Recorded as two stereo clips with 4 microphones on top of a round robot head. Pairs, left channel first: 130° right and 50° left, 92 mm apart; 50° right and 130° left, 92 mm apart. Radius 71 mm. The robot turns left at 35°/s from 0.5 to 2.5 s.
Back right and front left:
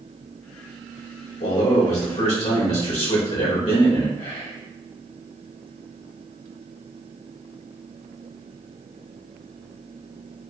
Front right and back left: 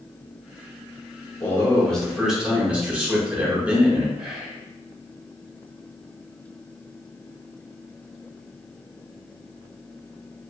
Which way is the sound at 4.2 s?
155° right.